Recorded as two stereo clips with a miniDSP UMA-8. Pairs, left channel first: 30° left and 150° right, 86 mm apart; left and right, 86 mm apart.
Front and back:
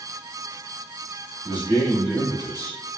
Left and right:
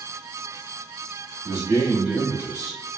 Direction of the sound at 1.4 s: 30° right.